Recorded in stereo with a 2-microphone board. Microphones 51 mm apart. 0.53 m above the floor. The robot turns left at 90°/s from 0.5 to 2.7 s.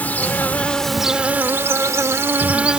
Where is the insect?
40° left; by 2.8 s 155° right.